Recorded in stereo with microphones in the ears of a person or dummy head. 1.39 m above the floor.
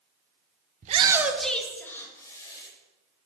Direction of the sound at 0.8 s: 50° right (ahead or behind).